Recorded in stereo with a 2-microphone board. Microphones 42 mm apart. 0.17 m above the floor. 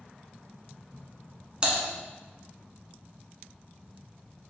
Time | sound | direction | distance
1.6 | typing on a keyboard | 20° right (ahead or behind) | 0.9 m